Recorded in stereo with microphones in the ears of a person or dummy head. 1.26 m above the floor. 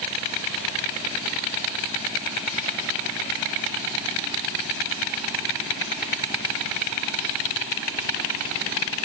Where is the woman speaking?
I don't hear a woman speaking.